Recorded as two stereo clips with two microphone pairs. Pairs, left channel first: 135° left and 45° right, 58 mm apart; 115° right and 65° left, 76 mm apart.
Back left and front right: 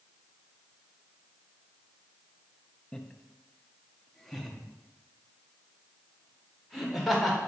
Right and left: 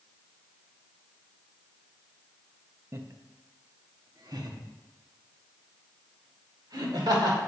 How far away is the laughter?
About 0.6 m.